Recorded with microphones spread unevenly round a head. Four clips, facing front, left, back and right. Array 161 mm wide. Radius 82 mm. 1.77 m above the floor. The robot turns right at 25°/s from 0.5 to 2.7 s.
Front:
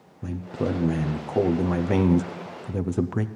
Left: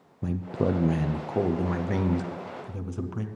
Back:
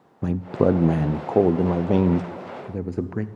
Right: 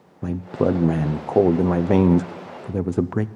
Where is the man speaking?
150° right, 0.5 m; by 3.3 s 95° right, 0.5 m.